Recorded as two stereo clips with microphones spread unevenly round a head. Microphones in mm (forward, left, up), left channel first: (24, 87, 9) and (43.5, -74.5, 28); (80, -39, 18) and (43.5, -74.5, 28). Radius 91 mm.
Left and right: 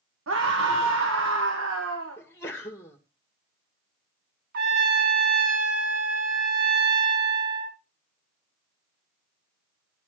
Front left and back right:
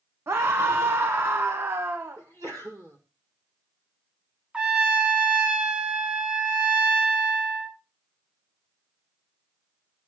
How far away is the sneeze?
About 1.9 m.